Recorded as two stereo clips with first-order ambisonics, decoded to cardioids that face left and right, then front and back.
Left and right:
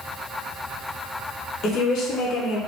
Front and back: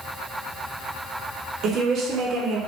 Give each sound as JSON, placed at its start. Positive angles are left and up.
{"t": 1.6, "sound": "a woman speaking", "azimuth_deg": 130, "distance_m": 0.7}